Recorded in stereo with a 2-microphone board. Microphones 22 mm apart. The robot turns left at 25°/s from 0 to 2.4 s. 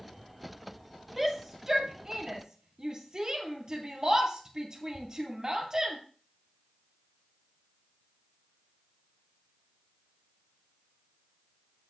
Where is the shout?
10° right (ahead or behind), 2.0 m; by 6.0 s 35° right (ahead or behind), 2.0 m.